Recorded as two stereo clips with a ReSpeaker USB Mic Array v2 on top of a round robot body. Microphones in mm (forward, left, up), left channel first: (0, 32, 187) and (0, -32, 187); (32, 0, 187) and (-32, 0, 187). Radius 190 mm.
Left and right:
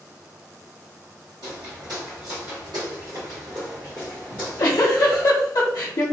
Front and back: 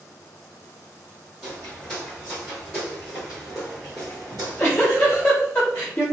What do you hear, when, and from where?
1.4 s footsteps: 80° right, 1.7 m; by 5.3 s 145° left, 0.9 m
4.3 s a giggle: 60° left, 0.7 m